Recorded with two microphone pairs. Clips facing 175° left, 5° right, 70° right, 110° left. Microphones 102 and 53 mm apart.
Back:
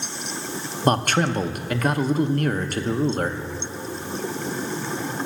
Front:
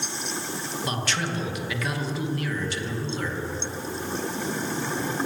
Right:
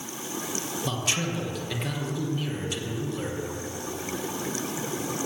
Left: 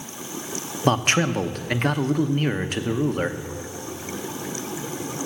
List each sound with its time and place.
0.8 s a man speaking: 140° left, 0.7 m